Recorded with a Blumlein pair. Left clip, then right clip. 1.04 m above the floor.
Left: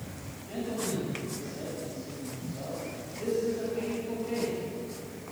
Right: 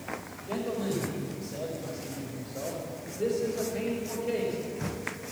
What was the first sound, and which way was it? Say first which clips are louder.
A man speaking: right 2 dB; 60° right.